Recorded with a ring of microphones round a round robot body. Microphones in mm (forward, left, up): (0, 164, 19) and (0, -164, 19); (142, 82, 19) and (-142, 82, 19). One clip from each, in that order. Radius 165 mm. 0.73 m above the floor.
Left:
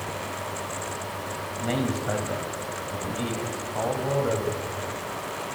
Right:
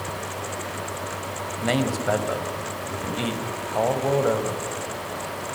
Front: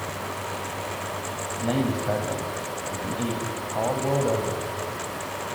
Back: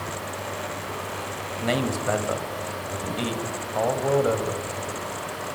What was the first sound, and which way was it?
A man speaking, 150° right.